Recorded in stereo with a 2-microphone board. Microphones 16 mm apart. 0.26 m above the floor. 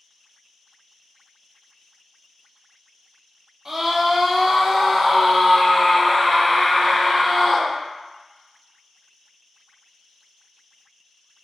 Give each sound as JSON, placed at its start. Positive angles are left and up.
{"t": 3.6, "sound": "a scream", "side_deg": -25, "distance_m": 1.4}